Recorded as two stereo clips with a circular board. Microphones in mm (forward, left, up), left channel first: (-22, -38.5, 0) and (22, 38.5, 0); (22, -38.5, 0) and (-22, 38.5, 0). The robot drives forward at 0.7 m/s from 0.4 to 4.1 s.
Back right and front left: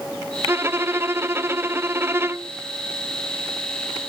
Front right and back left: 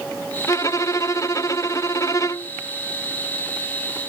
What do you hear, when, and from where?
0.5 s a violin: 5° right